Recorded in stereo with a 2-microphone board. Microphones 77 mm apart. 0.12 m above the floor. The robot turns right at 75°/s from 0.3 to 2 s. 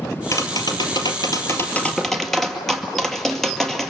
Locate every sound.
0.3 s tapping: 50° left, 2 m; by 3.9 s 175° left, 2 m